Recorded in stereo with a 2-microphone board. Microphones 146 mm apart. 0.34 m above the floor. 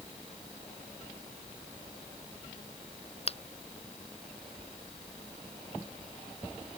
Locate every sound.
3.3 s a finger snap: 45° left (ahead or behind)